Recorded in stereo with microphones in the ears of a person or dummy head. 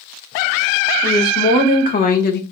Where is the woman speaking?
40° left (ahead or behind), 1.9 m; by 2.4 s 55° left (ahead or behind), 0.6 m.